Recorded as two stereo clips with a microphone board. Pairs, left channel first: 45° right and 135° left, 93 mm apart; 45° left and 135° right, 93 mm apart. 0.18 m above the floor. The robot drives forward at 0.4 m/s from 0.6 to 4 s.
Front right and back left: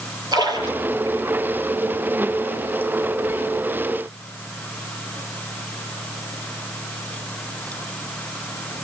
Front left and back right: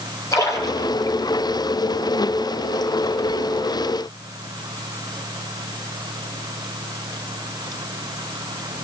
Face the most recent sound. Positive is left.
turn(degrees=120)